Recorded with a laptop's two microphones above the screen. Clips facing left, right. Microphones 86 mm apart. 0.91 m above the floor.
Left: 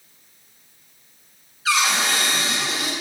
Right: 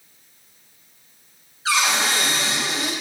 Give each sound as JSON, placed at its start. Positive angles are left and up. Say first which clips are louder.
{"t": 1.6, "sound": "a cupboard door", "louder": "even", "side_deg": -35, "distance_m": 3.0}